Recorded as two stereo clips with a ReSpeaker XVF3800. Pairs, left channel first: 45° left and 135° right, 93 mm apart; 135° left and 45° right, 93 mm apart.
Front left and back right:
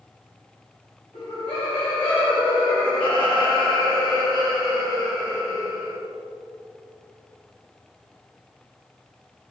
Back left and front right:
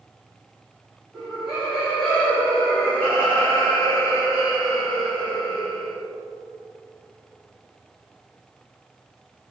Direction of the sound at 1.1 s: 40° left.